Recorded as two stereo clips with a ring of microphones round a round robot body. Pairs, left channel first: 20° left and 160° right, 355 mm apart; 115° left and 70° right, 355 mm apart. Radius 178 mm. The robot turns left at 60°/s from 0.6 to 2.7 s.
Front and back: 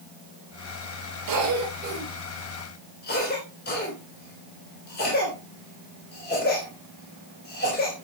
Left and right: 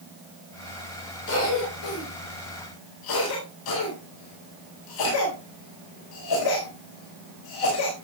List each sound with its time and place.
1.3 s a cough: 170° left, 4 m; by 8.1 s 85° left, 4 m